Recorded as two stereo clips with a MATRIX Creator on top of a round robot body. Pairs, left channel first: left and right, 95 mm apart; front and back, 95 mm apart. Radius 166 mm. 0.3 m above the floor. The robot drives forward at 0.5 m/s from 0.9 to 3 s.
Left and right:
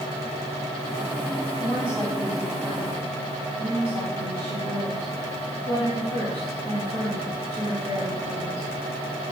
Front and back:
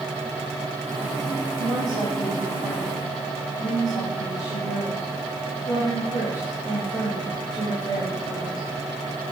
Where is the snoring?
I don't hear snoring.